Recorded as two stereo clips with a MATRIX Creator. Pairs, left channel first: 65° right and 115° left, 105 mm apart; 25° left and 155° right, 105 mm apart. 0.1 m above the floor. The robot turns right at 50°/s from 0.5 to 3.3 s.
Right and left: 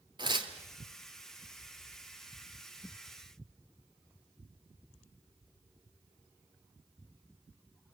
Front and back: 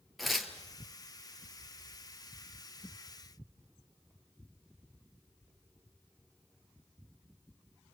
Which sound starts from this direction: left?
Tearing paper, at 0.2 s.